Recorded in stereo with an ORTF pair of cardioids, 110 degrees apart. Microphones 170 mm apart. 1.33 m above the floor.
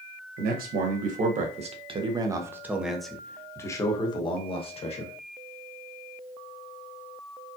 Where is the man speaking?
60° right, 1.4 m; by 5.1 s 40° left, 1.7 m.